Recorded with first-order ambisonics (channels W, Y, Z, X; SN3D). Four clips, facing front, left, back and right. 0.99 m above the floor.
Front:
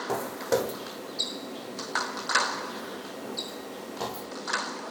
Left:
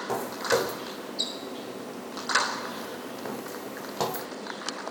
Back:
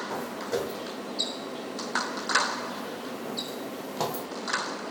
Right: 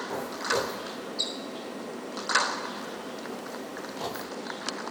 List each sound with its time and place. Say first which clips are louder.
0.1 s footsteps: left 4 dB, front 6 dB; 35° left, 2 m; by 4.3 s 125° left, 2 m